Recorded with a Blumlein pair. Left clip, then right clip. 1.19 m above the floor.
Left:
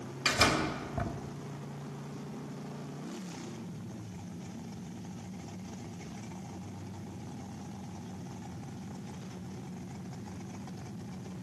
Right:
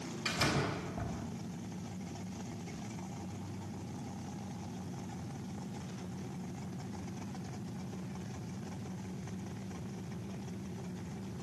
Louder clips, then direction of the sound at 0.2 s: Left 6 dB; 65° left.